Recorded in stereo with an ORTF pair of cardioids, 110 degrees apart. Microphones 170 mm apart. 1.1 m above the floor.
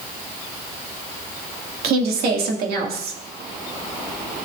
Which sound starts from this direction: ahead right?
A woman speaking, at 1.8 s.